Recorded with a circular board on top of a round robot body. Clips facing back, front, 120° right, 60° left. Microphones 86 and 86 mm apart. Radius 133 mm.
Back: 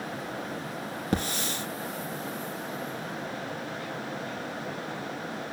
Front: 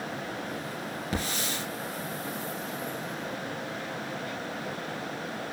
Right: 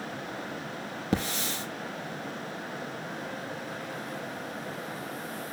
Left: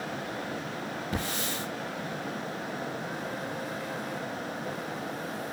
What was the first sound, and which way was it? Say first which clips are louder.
A hiss: back 4 dB, right 5 dB; 140° right.